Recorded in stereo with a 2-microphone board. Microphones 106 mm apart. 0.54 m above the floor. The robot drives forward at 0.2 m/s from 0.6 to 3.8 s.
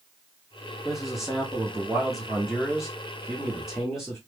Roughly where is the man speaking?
Centre.